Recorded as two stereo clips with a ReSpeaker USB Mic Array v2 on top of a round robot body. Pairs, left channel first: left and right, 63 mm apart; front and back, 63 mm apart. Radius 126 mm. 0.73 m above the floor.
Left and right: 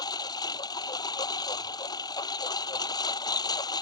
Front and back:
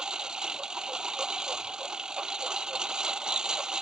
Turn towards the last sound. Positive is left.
turn(degrees=105)